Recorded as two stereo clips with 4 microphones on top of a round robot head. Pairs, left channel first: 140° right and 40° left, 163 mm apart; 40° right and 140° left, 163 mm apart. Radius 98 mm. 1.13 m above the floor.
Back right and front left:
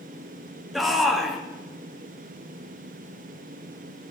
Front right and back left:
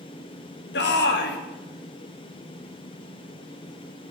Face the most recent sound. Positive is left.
turn(degrees=-50)